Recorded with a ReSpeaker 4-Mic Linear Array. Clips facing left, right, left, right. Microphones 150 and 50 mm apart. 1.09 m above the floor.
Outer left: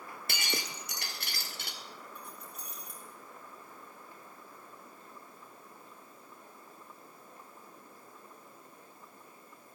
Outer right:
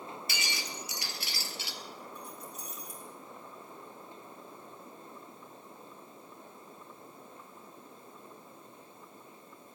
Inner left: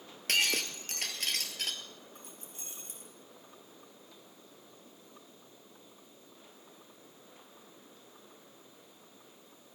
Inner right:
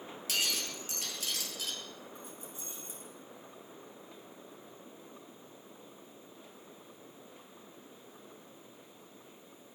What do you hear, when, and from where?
0.3 s breaking glass: 55° left (ahead or behind), 1.8 m
2.1 s keys jangling: 55° left (ahead or behind), 6 m